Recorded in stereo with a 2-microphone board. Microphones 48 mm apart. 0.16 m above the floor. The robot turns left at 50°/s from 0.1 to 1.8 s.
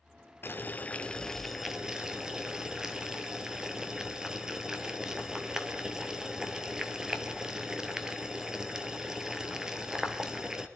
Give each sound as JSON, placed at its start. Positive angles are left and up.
{"t": 0.4, "sound": "boiling", "side_deg": 50, "distance_m": 0.9}